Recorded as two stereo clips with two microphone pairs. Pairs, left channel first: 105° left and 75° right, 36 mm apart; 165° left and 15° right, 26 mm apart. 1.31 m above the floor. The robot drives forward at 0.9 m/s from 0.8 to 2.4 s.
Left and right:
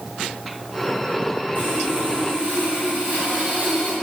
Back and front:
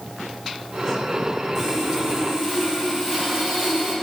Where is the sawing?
105° right, 4 m; by 3.9 s 115° right, 4.5 m.